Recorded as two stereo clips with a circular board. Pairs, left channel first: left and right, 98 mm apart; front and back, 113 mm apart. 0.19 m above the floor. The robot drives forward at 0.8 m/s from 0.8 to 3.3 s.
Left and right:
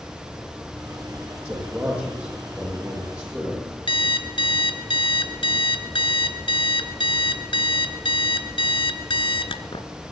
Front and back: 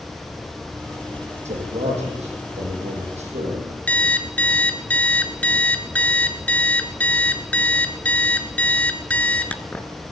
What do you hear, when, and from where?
1.4 s a man speaking: 165° right, 8.5 m
3.9 s an alarm clock: 75° left, 1.2 m